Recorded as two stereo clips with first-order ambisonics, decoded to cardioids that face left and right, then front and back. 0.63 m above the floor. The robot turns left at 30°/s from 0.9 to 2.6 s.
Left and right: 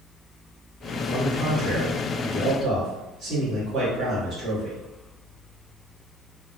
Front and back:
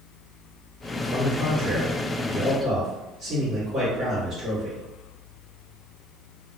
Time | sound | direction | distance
1.1 | a man speaking | 85° right | 1.1 m